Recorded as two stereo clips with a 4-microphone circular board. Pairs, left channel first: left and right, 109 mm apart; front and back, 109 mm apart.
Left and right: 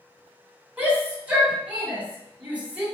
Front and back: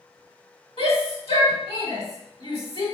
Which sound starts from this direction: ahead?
A shout, at 0.8 s.